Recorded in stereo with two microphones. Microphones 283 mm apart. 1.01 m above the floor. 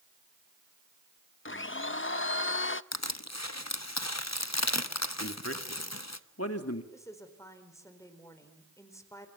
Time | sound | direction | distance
1.4 | a blender | 45° left (ahead or behind) | 0.6 m
2.9 | crushing | 65° left (ahead or behind) | 1.1 m
5.2 | a man speaking | 55° left (ahead or behind) | 2.5 m
6.9 | a woman speaking | 10° left (ahead or behind) | 4.5 m